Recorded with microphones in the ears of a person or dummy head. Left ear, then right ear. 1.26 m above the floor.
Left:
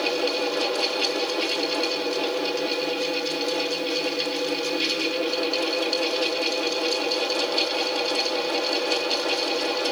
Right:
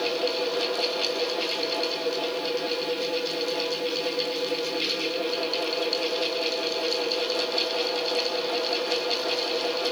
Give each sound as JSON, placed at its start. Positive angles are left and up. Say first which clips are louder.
{"t": 0.0, "sound": "a fan", "louder": "left 2 dB", "side_deg": 10, "distance_m": 1.4}